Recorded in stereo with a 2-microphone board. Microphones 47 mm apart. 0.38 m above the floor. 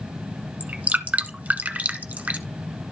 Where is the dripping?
30° right (ahead or behind), 1.1 m.